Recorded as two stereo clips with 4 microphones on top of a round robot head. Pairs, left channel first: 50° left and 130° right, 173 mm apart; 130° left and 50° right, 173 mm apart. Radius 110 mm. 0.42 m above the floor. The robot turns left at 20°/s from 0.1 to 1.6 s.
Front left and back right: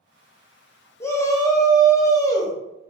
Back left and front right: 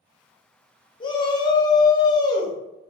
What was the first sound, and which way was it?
A shout, 110° left.